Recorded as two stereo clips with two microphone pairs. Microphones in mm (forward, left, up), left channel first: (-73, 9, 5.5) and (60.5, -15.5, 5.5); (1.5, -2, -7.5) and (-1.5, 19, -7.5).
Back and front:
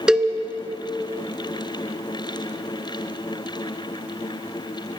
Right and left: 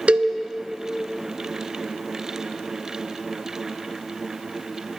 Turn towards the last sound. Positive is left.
turn(degrees=75)